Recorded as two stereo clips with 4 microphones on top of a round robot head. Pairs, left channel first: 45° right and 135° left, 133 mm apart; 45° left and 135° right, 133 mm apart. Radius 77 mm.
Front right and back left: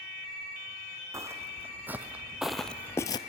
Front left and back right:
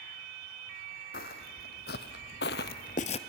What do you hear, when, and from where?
1.1 s footsteps: 65° left, 1.8 m; by 3.2 s 10° left, 0.6 m